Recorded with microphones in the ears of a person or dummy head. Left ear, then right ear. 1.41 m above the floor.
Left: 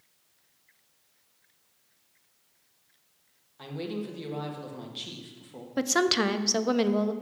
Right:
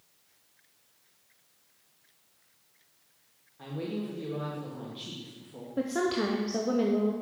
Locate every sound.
3.6 s a woman speaking: 30° left (ahead or behind), 1.5 m
5.8 s a woman speaking: 50° left (ahead or behind), 0.6 m